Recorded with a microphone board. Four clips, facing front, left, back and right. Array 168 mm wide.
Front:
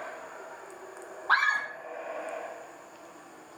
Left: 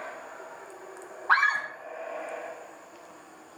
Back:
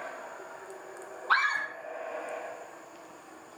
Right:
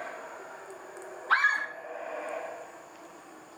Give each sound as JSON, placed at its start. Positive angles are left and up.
{"t": 1.3, "sound": "a scream", "azimuth_deg": 55, "distance_m": 7.0}